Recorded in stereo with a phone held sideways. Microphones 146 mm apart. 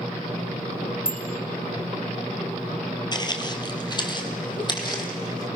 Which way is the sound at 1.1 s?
80° left.